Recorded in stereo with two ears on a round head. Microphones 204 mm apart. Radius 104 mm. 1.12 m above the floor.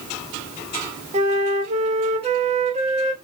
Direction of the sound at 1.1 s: 30° right (ahead or behind).